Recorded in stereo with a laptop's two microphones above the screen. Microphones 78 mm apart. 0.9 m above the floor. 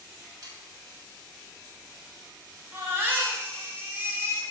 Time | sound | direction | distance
0.4 | sawing | 60° right (ahead or behind) | 2.0 m
2.7 | a baby crying | 30° right (ahead or behind) | 1.8 m